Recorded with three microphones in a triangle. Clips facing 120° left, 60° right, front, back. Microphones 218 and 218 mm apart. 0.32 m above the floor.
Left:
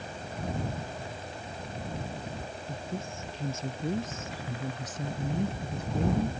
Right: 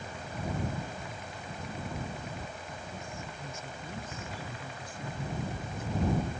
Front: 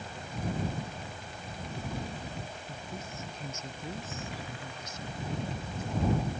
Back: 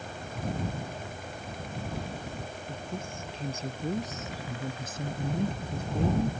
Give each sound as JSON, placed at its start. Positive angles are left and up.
{"t": 2.7, "sound": "a woman speaking", "azimuth_deg": 115}